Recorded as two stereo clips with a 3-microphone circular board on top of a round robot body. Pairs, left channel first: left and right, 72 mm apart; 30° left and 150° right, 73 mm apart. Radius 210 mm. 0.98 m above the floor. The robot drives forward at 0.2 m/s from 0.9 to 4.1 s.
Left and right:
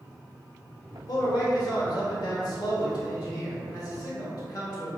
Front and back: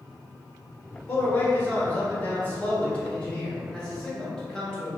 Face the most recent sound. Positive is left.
turn(degrees=110)